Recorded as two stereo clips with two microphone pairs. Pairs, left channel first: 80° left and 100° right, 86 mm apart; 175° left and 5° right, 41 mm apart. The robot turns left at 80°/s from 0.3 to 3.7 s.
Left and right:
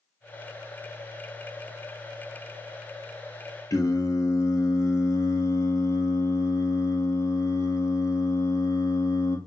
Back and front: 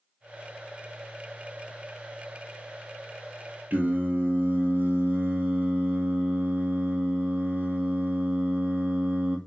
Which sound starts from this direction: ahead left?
Singing, at 3.7 s.